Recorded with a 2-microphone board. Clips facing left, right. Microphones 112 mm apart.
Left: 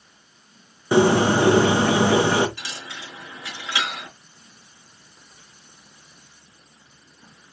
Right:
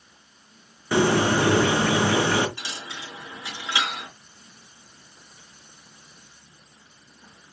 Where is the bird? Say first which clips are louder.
Left 4 dB; 20° left (ahead or behind), 1.0 m.